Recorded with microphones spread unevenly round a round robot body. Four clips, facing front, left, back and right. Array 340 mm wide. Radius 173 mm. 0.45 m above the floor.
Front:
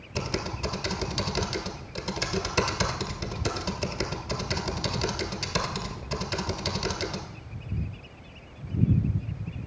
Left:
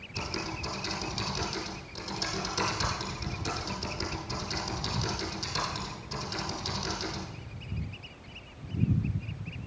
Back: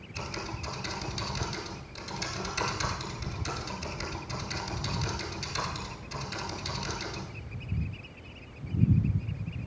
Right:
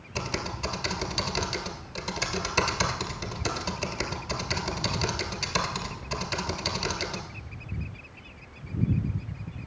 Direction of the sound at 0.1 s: 25° right.